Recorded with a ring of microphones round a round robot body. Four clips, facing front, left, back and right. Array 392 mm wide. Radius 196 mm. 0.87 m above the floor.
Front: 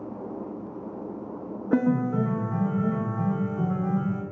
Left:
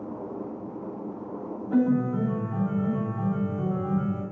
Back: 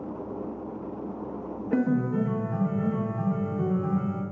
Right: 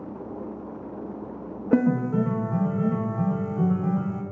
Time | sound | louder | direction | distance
1.7 | a piano | right 2 dB, front 2 dB | 75° right | 0.6 m